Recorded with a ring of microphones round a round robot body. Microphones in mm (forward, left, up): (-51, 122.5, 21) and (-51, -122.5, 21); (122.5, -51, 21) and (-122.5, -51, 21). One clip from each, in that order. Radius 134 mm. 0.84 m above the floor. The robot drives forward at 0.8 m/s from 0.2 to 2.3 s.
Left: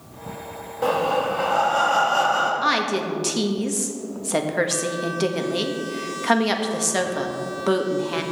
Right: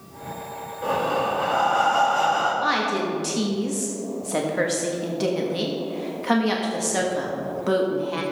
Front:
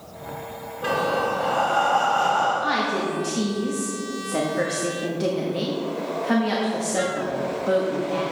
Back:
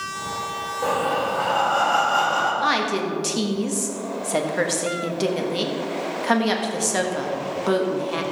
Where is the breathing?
120° left, 1.3 m; by 2.5 s 150° left, 2 m.